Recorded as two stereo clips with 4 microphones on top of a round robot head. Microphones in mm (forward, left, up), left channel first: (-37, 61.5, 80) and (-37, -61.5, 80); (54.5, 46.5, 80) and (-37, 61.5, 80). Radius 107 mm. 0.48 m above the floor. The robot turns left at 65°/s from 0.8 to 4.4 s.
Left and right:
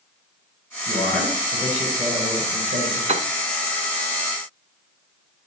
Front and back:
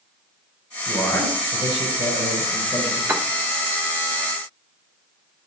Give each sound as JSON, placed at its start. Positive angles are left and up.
{"t": 0.9, "sound": "a man speaking", "azimuth_deg": 50, "distance_m": 4.5}
{"t": 3.1, "sound": "a piano", "azimuth_deg": -115, "distance_m": 1.0}